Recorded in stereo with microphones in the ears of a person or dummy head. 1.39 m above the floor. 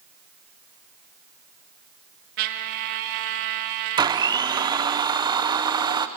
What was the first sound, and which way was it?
A trumpet, 45° right (ahead or behind).